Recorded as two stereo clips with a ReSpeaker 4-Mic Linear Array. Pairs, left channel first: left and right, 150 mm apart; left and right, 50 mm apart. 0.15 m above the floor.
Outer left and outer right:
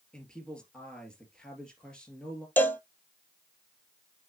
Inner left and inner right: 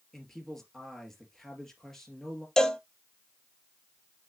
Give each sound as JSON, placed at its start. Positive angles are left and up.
{"t": 0.1, "sound": "a man speaking", "side_deg": 5, "distance_m": 2.5}
{"t": 2.6, "sound": "a cowbell", "side_deg": 15, "distance_m": 0.6}